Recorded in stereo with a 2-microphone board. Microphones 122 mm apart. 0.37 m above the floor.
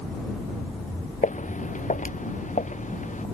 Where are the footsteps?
80° left.